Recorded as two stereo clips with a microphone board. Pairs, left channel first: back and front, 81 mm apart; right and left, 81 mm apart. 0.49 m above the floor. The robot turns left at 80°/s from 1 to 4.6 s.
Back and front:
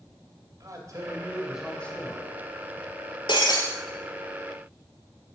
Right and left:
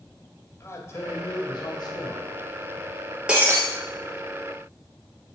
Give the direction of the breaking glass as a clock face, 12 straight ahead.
6 o'clock.